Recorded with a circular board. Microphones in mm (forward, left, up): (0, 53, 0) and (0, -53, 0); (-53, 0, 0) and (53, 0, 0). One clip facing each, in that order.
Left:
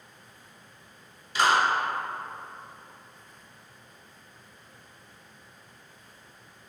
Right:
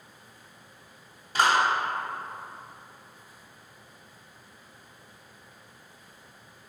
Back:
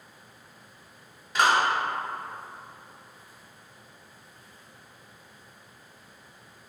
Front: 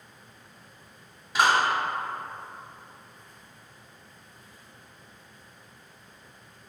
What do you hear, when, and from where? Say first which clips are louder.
1.4 s a clap: even, even; 85° right, 1.3 m